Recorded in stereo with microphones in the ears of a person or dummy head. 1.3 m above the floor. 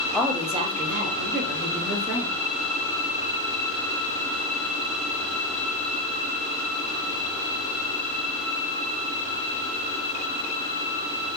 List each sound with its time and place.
0.1 s a woman speaking: 5° left (ahead or behind), 0.5 m; by 2.3 s 65° right (ahead or behind), 1.6 m